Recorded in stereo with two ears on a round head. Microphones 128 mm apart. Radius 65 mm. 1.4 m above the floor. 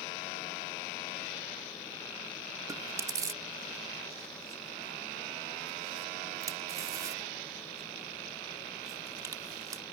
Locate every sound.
2.7 s chewing: 25° right (ahead or behind)